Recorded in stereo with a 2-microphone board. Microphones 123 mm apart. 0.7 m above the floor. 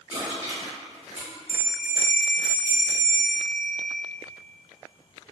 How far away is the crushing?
About 1.5 m.